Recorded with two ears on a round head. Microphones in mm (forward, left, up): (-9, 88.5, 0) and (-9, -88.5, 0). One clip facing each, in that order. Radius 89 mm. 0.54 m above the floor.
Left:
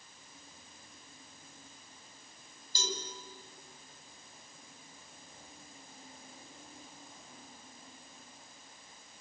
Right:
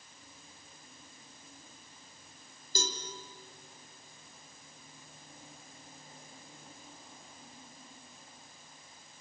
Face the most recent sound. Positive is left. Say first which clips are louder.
# right 2 dB
turn(degrees=-45)  # may be behind; listen again after turning